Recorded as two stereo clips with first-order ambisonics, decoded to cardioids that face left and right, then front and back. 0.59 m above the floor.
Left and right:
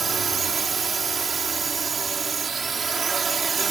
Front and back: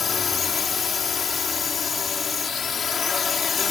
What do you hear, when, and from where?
0.0 s a drone: 35° right